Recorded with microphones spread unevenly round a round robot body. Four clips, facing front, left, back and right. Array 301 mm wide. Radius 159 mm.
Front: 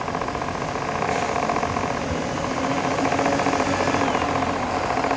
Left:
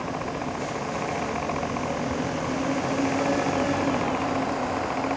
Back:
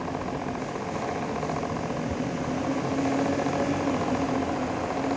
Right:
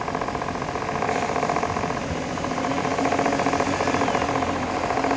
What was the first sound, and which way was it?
Only background noise.